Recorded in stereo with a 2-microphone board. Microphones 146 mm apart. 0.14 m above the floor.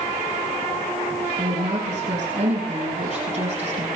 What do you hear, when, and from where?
1.4 s a woman speaking: 45° right (ahead or behind), 5.5 m